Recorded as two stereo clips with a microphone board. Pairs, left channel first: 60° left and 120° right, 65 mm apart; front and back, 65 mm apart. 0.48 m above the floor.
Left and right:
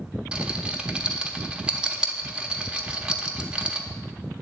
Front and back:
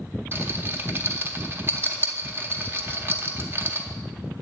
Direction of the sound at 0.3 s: 175° left.